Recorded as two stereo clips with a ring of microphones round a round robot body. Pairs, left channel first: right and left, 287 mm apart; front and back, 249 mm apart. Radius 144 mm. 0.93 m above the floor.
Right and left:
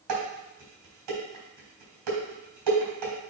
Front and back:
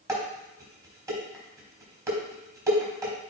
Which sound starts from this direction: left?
Dishes clattering, at 0.1 s.